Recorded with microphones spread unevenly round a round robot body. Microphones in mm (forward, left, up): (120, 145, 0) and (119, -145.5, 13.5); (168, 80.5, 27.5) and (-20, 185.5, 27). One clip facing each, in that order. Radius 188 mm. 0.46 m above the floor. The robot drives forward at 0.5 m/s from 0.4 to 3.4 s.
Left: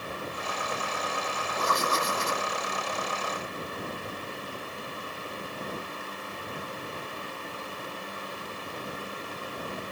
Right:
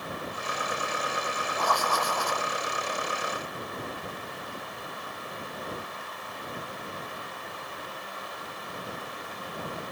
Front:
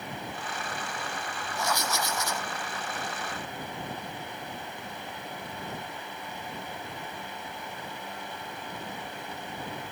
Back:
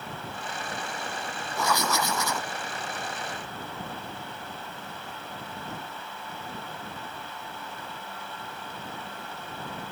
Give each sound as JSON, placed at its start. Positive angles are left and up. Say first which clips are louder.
{"t": 1.6, "sound": "writing", "louder": "left 1 dB, back 4 dB", "azimuth_deg": 165}